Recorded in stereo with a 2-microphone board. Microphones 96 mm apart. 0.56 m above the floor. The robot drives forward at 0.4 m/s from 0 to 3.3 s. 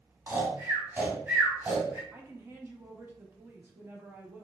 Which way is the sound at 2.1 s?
25° right (ahead or behind).